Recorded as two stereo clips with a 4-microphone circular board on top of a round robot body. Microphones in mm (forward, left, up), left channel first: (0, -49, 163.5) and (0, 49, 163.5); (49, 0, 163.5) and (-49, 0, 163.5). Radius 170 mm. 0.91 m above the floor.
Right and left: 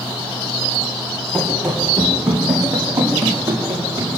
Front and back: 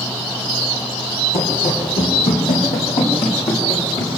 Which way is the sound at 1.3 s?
15° right.